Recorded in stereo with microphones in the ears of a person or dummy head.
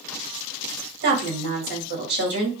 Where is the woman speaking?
60° right (ahead or behind), 1.7 m.